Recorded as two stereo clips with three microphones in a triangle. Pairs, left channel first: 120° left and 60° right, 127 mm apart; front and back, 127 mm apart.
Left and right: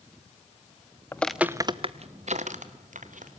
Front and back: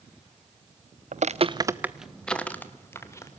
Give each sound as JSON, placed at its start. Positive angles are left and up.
{"t": 1.1, "sound": "footsteps", "azimuth_deg": -170, "distance_m": 0.8}